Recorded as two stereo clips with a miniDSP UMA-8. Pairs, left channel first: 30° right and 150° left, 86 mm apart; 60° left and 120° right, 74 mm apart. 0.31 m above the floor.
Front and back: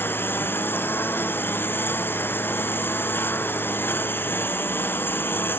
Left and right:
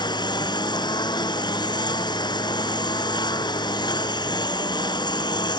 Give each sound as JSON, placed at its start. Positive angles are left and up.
{"t": 0.0, "sound": "a lawn mower", "azimuth_deg": 35}